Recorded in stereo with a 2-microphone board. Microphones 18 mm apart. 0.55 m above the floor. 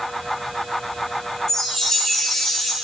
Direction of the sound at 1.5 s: 35° left (ahead or behind).